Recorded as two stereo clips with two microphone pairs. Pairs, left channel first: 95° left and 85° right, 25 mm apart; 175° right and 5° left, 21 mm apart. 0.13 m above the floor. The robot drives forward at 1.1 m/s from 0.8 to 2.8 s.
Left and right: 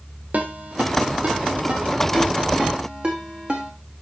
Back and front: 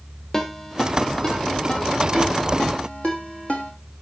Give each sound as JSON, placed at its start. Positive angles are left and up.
{"t": 0.3, "sound": "a ringtone", "azimuth_deg": -110, "distance_m": 2.5}